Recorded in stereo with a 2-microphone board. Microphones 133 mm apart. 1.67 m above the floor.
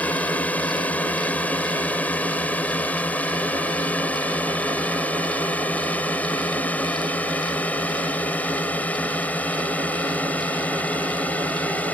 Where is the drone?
10° left (ahead or behind).